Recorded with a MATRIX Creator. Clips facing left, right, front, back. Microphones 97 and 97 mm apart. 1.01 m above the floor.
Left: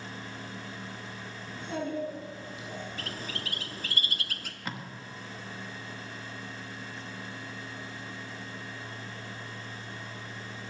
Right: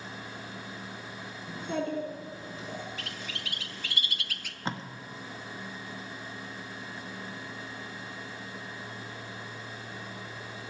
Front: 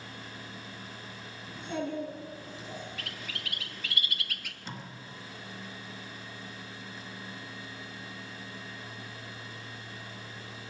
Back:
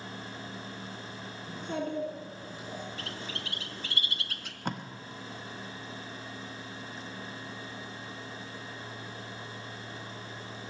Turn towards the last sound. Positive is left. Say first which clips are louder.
# right 4 dB, back 8 dB
turn(degrees=-150)